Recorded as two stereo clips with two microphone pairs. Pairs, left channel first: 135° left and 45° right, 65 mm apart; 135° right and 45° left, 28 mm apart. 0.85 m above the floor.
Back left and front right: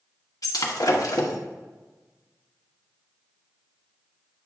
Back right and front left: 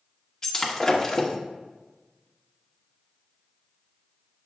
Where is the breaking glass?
155° left, 0.9 m.